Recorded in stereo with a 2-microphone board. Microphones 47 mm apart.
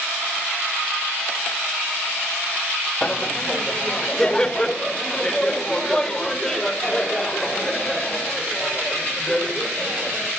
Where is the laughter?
15° left (ahead or behind), 0.5 m; by 10.3 s 10° left (ahead or behind), 4.5 m.